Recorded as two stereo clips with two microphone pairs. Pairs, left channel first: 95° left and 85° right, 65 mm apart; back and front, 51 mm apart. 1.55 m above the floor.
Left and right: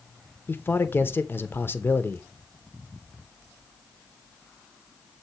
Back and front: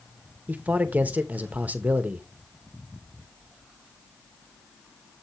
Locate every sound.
0.5 s a man speaking: 50° left, 0.7 m